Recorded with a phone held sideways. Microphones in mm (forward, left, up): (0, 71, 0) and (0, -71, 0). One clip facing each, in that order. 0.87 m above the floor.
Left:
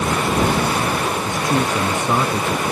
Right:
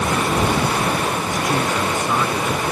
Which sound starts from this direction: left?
A man speaking, at 1.2 s.